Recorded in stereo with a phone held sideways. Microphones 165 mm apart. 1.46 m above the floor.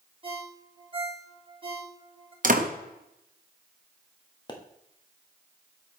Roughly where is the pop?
Left.